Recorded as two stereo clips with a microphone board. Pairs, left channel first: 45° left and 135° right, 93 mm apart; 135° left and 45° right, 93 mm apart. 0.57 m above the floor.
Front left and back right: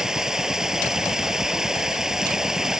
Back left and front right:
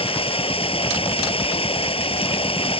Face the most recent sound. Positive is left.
turn(degrees=140)